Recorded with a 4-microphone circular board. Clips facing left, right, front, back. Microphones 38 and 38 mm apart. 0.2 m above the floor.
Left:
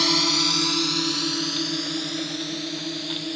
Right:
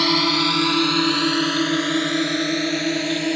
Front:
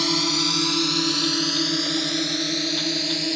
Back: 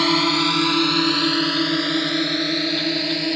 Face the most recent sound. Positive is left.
turn(degrees=-115)